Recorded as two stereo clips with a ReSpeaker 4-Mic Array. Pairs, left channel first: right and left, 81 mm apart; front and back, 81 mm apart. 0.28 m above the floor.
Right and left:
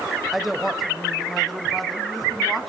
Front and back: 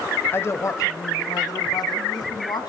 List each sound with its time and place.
0.3 s a woman speaking: 5° left, 1.2 m; by 2.7 s straight ahead, 3 m